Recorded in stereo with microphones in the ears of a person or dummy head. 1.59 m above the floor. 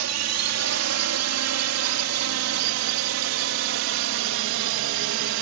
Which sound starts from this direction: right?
A drone, at 0.0 s.